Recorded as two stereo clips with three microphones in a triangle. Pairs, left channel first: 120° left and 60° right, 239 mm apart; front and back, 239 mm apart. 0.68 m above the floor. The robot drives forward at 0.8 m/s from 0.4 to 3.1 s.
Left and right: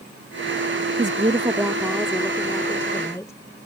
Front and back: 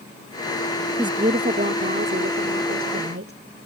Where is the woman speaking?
110° right; by 3.4 s 160° right.